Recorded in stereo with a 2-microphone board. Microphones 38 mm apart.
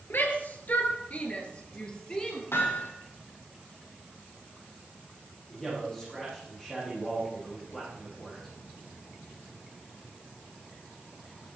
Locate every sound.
0.1 s a shout: 55° left (ahead or behind), 3.5 m; by 2.4 s 20° left (ahead or behind), 4.5 m
2.5 s hammering: 80° left, 5.5 m
5.5 s a man speaking: 15° left (ahead or behind), 8.5 m